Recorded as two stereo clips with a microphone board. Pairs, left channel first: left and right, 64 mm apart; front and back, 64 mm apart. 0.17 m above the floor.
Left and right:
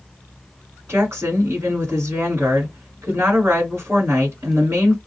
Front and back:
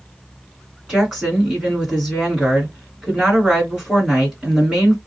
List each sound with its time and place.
0.9 s a woman speaking: 110° right, 1.9 m